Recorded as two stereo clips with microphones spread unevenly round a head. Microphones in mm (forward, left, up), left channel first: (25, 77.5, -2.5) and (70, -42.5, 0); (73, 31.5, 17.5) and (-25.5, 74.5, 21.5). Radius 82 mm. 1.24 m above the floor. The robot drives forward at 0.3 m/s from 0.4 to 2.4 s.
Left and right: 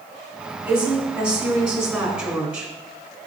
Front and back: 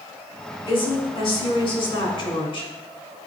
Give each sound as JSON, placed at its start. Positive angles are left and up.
{"t": 0.7, "sound": "a woman speaking", "azimuth_deg": 10, "distance_m": 3.5}